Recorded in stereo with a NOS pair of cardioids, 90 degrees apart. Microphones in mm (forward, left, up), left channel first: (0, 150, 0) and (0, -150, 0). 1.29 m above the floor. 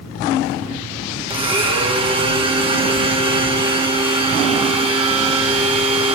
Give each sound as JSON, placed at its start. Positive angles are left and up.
{"t": 1.3, "sound": "a blender", "azimuth_deg": -20, "distance_m": 1.7}